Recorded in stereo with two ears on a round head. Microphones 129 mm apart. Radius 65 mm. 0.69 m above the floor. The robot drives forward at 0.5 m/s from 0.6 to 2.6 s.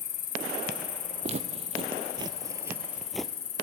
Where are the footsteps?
45° right (ahead or behind), 1.2 m; by 3.3 s 5° left (ahead or behind), 0.9 m.